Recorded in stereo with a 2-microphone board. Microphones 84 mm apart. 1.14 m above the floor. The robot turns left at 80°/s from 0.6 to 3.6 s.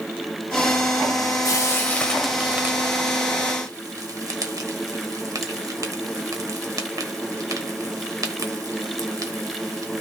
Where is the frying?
40° left (ahead or behind), 1.2 m; by 10.0 s 45° right (ahead or behind), 1.2 m.